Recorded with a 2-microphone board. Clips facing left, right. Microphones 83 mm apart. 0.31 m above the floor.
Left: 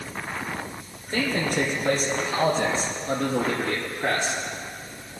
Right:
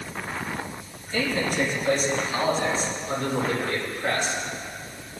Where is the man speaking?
60° left (ahead or behind), 4.5 m; by 4.4 s 80° left, 5.5 m.